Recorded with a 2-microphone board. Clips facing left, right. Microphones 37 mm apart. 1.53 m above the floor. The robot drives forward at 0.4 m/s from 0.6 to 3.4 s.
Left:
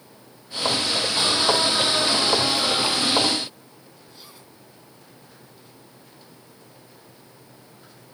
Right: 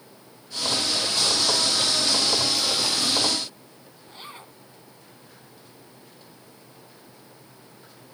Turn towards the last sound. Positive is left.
turn(degrees=-40)  # may be behind; listen again after turning